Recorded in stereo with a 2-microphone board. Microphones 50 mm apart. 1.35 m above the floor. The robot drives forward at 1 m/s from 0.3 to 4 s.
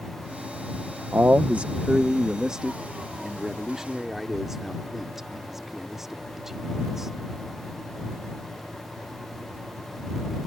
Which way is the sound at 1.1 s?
50° right (ahead or behind).